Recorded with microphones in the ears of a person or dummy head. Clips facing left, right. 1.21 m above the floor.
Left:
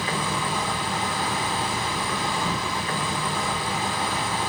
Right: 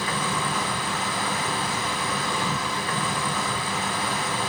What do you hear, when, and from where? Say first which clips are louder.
0.0 s an insect: even; 15° left (ahead or behind), 0.9 m